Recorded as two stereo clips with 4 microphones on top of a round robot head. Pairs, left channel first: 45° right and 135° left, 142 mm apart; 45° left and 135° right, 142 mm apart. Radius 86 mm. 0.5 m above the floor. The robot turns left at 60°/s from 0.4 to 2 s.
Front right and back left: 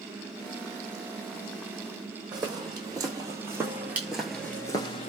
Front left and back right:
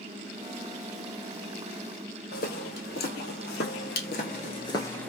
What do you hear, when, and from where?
2.3 s footsteps: 75° left, 1.4 m; by 5.1 s 35° right, 0.5 m